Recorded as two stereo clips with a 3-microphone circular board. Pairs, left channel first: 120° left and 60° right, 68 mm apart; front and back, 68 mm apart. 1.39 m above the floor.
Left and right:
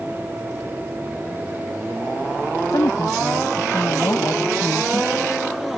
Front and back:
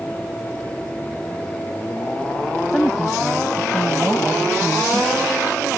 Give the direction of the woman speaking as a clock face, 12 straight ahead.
9 o'clock.